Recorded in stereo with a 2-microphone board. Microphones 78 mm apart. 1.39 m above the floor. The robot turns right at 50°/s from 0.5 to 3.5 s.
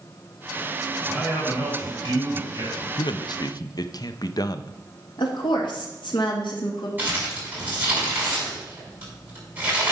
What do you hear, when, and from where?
1.1 s a man speaking: 165° right, 5 m; by 2.9 s 80° right, 5 m
3.0 s a man speaking: 75° left (ahead or behind), 0.6 m; by 4.7 s 55° left (ahead or behind), 0.6 m
5.2 s a woman speaking: 85° left, 2 m
7.0 s crumpling: 20° right (ahead or behind), 5.5 m